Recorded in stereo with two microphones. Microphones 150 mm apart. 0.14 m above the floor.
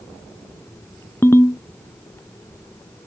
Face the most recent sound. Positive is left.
turn(degrees=15)  # may be behind; listen again after turning